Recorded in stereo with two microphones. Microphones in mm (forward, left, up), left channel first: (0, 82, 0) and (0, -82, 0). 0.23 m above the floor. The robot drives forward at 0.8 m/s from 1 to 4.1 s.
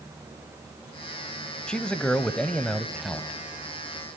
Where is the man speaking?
5° left (ahead or behind), 1.1 m.